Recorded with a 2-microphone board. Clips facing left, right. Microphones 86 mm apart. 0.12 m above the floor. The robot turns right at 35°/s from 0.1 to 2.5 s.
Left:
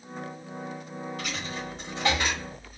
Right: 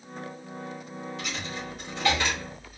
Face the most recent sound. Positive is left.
turn(degrees=0)  # may be behind; listen again after turning